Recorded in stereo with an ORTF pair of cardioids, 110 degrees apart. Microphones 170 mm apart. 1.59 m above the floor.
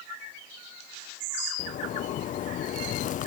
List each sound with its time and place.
1.6 s a zipper: 50° left